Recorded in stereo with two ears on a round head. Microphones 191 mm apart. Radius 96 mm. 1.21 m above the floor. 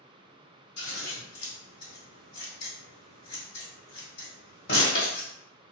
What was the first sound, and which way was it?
Scissors, 55° left (ahead or behind).